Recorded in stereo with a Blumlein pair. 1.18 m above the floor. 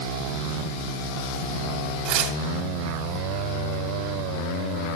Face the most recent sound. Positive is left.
turn(degrees=-45)